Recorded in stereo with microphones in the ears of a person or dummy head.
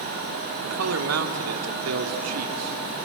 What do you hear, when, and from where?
0.6 s a man speaking: 80° right, 3 m